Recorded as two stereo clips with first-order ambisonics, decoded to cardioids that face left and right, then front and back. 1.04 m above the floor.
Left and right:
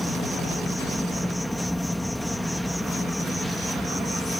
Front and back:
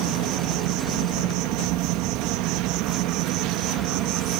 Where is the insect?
175° left.